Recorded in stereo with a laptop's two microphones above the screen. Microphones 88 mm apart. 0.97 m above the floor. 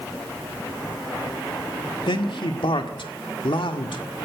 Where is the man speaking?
70° left (ahead or behind), 1.9 m.